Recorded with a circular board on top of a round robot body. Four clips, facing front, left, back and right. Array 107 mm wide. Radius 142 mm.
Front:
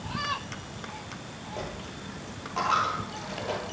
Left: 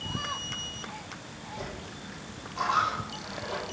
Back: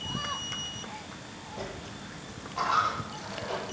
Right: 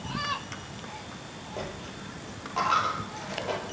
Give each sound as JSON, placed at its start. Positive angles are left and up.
{"t": 1.6, "sound": "a dropped coin", "azimuth_deg": -55, "distance_m": 7.0}